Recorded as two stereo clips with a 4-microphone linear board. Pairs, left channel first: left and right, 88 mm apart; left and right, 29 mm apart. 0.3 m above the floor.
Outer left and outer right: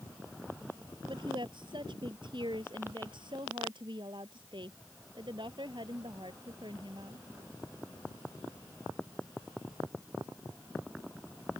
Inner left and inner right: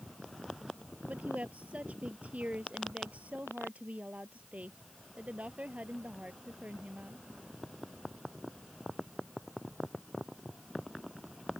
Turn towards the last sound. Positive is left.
turn(degrees=-60)  # may be behind; listen again after turning